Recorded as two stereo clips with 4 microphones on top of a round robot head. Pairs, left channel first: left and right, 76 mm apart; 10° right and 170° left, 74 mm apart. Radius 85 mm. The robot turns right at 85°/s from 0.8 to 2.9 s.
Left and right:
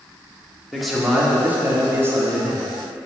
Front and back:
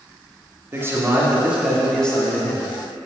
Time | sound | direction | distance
0.7 | a man speaking | 175° left | 1.5 m